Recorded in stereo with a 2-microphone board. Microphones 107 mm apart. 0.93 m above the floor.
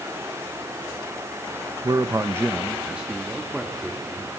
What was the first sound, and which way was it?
A man speaking, 35° right (ahead or behind).